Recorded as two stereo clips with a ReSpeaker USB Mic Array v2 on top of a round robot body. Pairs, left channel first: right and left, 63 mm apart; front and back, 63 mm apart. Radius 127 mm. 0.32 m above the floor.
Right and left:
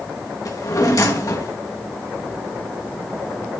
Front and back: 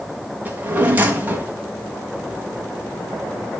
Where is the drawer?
120° right, 2.5 m.